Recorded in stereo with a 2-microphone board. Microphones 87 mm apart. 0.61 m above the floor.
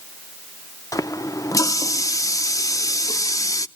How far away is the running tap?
About 0.6 m.